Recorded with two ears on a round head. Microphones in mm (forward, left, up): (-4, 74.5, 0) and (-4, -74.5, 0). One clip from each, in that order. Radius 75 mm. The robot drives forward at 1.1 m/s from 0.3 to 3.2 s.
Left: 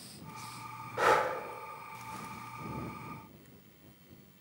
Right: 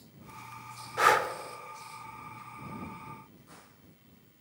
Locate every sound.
1.0 s breathing: 45° right (ahead or behind), 0.9 m; by 1.3 s 40° right (ahead or behind), 1.0 m